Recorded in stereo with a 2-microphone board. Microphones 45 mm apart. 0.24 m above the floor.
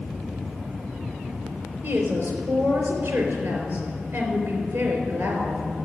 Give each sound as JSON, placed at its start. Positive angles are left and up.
{"t": 1.8, "sound": "a woman speaking", "side_deg": -75, "distance_m": 4.0}